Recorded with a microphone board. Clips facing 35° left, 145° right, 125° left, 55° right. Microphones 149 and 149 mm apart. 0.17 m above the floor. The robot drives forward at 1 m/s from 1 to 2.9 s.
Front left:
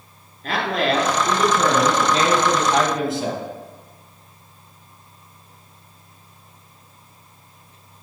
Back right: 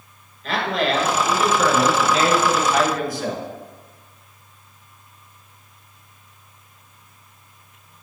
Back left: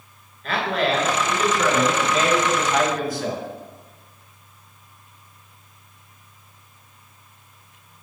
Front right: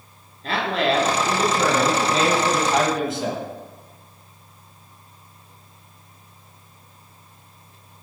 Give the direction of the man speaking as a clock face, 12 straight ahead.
12 o'clock.